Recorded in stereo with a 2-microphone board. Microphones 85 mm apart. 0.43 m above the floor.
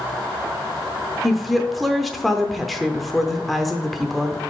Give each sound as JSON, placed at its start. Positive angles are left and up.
{"t": 1.2, "sound": "a woman speaking", "side_deg": 0, "distance_m": 0.7}